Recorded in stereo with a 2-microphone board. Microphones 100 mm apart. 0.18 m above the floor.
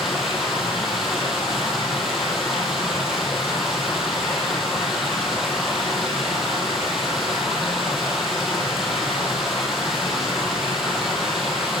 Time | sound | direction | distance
0.0 | running water | 5° right (ahead or behind) | 1.6 m